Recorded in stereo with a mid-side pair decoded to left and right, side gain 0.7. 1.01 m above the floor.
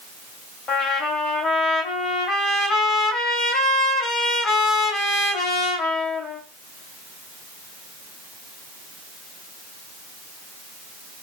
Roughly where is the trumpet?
Ahead left.